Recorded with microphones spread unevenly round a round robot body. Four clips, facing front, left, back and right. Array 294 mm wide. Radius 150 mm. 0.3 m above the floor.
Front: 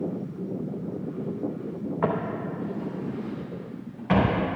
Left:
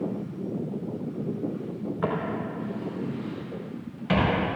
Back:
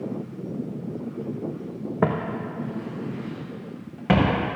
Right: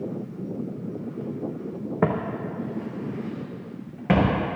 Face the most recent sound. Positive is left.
turn(degrees=-140)